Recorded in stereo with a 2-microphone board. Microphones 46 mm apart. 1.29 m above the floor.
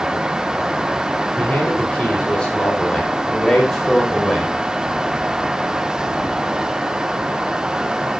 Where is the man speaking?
30° left (ahead or behind), 5.5 m; by 4.5 s centre (ahead or behind), 5.5 m.